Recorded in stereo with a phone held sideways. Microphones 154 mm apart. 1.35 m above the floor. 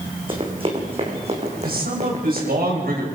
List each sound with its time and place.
0.3 s running footsteps: 35° right (ahead or behind), 6 m; by 2.6 s 50° right (ahead or behind), 6.5 m
1.6 s a man speaking: 90° right, 6.5 m